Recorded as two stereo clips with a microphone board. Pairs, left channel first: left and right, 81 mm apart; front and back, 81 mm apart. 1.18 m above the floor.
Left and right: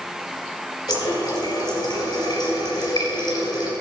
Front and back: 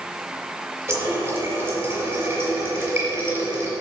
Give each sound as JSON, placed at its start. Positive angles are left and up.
{"t": 0.9, "sound": "a running tap", "azimuth_deg": 125, "distance_m": 3.0}